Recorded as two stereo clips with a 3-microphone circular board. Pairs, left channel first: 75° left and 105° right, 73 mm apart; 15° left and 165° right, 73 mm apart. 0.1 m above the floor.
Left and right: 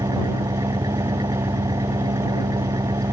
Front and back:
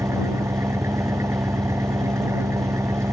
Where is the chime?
I don't hear a chime.